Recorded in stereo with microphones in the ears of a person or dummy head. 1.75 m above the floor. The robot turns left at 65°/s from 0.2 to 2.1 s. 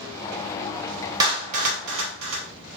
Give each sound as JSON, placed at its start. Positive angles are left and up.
{"t": 1.2, "sound": "a clap", "side_deg": -20, "distance_m": 2.5}